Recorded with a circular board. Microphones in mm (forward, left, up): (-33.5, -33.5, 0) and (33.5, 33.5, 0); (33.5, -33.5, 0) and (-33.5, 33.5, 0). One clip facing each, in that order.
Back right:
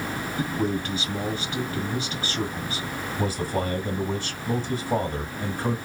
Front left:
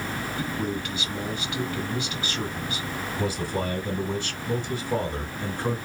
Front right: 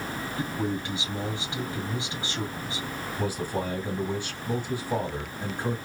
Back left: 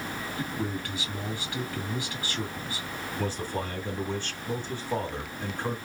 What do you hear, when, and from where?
0.4 s a man speaking: 100° right, 1.9 m
3.2 s a man speaking: 120° right, 1.8 m